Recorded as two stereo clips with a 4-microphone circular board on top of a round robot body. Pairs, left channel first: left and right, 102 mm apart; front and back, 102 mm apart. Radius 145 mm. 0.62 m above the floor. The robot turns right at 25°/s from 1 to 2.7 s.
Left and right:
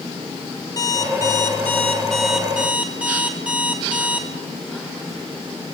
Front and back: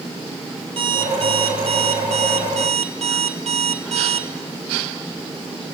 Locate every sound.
0.8 s an alarm clock: 150° left, 3 m; by 4.3 s 170° right, 3 m